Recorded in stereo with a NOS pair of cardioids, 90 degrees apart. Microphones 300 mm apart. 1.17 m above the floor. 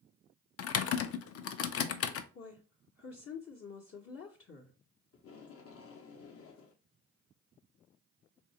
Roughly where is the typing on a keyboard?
Ahead left.